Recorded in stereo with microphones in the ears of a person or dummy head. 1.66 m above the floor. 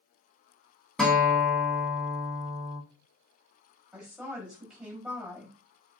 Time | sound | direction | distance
1.0 | a guitar | centre (ahead or behind) | 1.6 m
3.9 | a woman speaking | 5° right (ahead or behind) | 3.5 m